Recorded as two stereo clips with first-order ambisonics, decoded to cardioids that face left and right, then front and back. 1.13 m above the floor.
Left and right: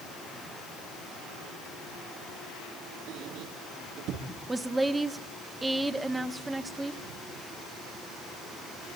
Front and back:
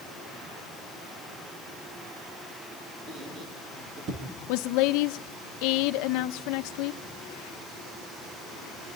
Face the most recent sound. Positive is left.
turn(degrees=-10)